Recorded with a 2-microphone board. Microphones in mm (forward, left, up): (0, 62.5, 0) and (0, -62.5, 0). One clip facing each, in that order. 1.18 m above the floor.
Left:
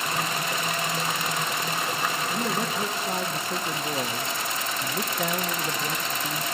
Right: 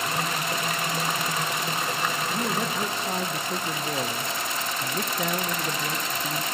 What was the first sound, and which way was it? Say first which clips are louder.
A man speaking: even; centre (ahead or behind).